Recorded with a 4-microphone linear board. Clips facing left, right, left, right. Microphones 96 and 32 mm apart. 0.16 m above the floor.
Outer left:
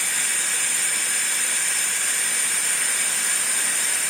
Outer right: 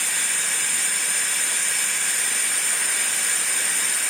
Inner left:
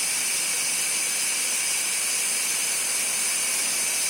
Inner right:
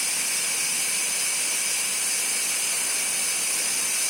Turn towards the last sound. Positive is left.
No sound to turn to.